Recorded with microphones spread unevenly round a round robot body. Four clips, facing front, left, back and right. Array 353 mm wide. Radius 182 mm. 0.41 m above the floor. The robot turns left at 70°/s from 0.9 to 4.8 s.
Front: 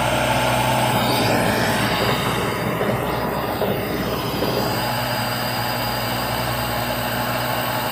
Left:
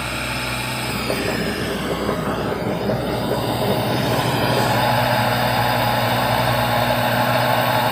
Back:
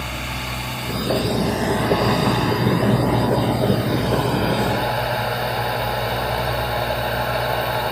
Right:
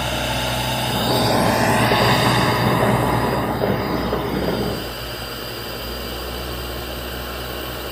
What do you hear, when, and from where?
0.0 s a drone: 5° right; by 7.9 s 80° left